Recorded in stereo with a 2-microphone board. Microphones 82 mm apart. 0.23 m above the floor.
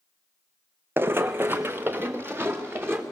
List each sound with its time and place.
1.0 s running footsteps: 25° right (ahead or behind), 0.5 m